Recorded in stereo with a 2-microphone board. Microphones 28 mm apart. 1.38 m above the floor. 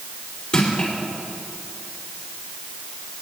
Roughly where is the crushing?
Left.